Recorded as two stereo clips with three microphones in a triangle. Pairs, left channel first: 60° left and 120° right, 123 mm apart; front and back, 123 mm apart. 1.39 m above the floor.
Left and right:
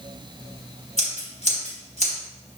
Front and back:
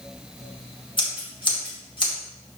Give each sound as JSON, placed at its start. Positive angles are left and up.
{"t": 1.0, "sound": "scissors", "azimuth_deg": 45, "distance_m": 3.5}